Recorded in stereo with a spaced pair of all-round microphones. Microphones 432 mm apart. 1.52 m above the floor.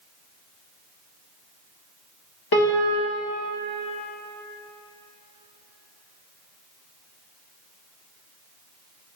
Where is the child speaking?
No child speaking in this recording.